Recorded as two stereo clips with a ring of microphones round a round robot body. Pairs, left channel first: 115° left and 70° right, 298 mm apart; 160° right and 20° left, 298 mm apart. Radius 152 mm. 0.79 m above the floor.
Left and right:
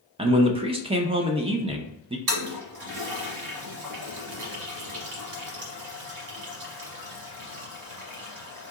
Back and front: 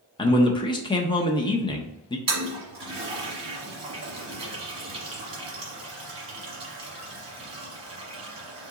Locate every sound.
0.2 s a man speaking: 110° right, 0.5 m
2.3 s a toilet flushing: 45° right, 1.2 m